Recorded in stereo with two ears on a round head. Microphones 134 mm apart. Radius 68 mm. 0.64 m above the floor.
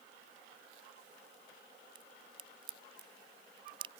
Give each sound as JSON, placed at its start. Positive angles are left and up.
{"t": 1.9, "sound": "a crack", "side_deg": -35}